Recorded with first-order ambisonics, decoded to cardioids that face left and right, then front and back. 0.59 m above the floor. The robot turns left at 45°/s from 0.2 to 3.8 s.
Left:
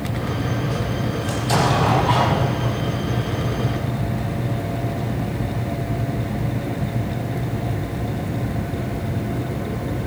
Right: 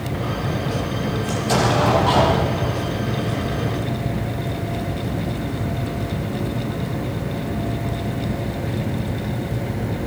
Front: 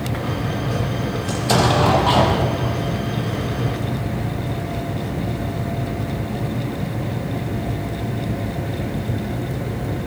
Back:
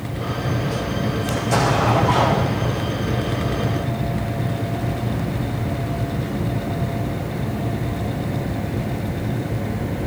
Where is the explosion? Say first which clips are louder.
Even, front 2 dB; 15° left, 5.5 m; by 2.9 s 60° right, 5.5 m.